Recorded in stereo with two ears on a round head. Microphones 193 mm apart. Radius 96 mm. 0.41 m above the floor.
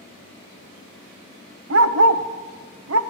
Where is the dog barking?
75° right (ahead or behind), 0.6 m.